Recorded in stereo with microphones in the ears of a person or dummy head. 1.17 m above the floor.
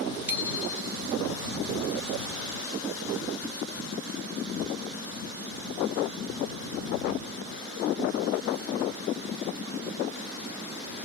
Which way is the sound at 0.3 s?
5° right (ahead or behind).